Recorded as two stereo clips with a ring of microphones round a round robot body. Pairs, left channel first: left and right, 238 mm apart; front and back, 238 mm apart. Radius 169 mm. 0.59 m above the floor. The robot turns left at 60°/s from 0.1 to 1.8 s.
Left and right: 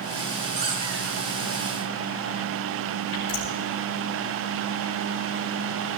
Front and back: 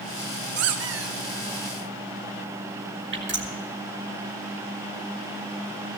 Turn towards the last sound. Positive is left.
turn(degrees=140)